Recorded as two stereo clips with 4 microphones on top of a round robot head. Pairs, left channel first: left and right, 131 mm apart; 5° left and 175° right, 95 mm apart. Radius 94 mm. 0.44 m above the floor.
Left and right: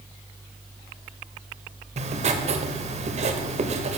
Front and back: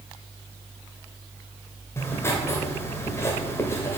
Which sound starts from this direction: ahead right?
Writing, at 2.0 s.